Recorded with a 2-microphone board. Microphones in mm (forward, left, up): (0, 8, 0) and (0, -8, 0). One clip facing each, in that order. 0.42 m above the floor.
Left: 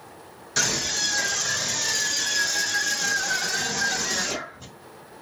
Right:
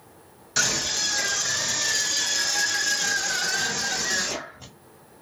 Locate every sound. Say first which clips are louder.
0.6 s a scream: even; 10° right (ahead or behind), 2.0 m; by 4.7 s centre (ahead or behind), 1.3 m